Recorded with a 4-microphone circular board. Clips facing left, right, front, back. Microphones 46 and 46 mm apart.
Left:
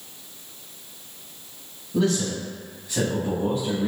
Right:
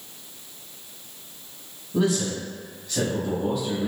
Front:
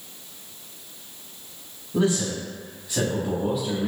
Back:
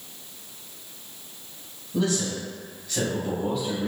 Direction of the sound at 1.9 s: 30° right.